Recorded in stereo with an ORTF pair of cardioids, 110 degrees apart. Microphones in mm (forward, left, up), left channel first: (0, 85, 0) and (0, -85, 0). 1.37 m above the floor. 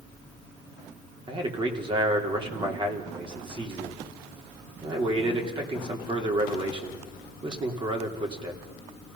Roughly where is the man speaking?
Ahead right.